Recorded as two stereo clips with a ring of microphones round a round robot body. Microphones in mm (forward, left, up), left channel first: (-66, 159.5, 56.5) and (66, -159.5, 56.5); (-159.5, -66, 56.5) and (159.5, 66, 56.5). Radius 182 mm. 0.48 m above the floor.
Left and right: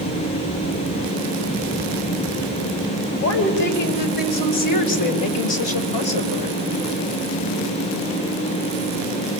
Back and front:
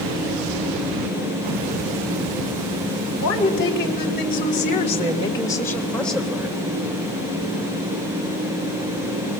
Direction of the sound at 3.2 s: 150° left.